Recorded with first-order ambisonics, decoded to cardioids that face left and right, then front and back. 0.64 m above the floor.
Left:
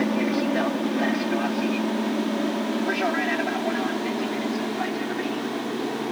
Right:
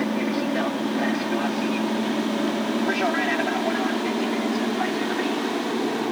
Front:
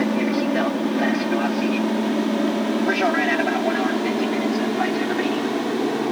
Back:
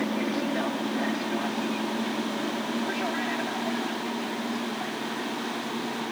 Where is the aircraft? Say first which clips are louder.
Left 1 dB, front 7 dB; 15° left; by 6.1 s 15° right.